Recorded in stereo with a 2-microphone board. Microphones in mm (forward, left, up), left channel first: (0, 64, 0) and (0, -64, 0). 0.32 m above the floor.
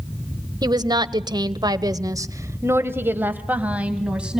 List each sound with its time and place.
0.6 s a woman speaking: 30° right (ahead or behind), 1.3 m; by 4.4 s 5° right (ahead or behind), 2 m